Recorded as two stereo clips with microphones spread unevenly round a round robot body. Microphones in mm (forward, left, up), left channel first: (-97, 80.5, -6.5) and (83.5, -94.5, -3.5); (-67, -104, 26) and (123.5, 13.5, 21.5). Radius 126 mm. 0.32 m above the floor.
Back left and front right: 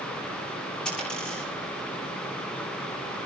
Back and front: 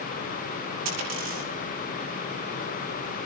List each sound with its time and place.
0.8 s a dropped coin: 50° left, 7.5 m